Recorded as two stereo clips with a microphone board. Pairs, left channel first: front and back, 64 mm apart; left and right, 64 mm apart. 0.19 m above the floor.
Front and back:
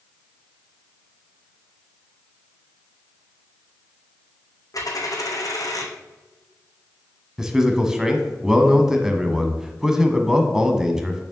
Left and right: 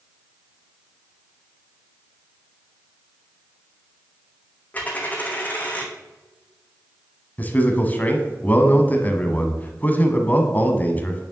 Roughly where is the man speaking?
Left.